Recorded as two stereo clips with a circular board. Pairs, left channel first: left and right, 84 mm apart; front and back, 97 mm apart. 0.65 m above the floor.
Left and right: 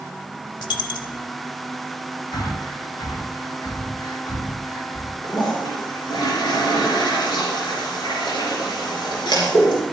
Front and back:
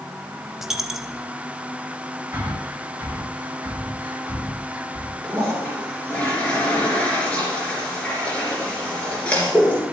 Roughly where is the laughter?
No laughter in this recording.